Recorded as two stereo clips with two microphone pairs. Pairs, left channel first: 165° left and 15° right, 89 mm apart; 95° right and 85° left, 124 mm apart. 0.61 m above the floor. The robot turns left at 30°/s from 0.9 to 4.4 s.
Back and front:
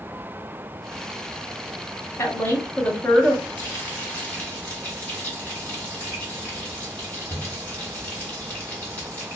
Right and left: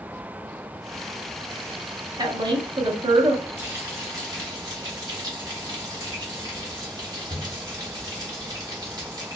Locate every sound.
2.2 s a woman speaking: 125° left, 0.7 m; by 3.5 s 90° left, 0.7 m
3.6 s frying: 135° left, 1.4 m; by 9.4 s 110° left, 1.4 m